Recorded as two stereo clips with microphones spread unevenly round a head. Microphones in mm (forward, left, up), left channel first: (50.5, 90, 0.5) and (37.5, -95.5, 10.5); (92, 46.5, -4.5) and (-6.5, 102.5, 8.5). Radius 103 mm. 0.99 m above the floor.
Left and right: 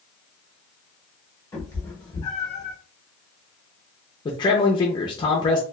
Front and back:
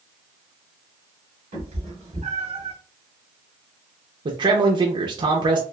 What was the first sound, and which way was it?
A cat meowing, 165° left.